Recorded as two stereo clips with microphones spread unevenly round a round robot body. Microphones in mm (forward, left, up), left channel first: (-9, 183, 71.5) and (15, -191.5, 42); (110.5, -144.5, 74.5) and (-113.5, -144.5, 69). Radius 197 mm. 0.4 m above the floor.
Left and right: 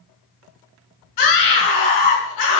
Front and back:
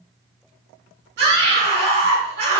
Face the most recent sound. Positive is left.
turn(degrees=130)